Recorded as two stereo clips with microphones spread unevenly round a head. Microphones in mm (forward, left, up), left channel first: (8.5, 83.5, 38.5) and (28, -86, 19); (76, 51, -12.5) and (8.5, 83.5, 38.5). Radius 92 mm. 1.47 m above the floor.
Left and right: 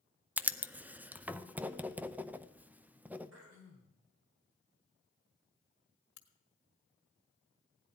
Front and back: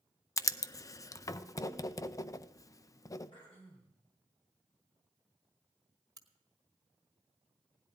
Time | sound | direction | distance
0.4 | writing | 5° right | 0.5 m
3.3 | throat clearing | 100° right | 3 m
6.2 | a crack | 120° left | 1.6 m